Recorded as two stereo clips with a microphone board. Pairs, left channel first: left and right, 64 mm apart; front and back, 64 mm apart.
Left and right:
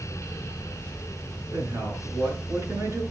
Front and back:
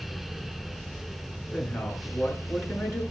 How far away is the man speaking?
About 6.5 m.